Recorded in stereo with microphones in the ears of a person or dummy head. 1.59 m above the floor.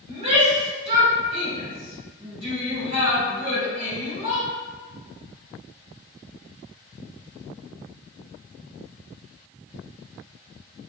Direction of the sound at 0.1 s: 35° right (ahead or behind).